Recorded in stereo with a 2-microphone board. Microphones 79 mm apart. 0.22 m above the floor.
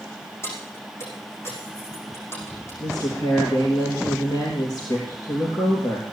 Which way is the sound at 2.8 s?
55° left (ahead or behind).